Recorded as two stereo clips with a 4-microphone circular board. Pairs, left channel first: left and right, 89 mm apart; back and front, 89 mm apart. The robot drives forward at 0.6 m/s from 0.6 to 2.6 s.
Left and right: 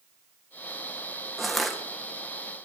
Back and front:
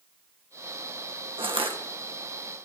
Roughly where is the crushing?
Ahead.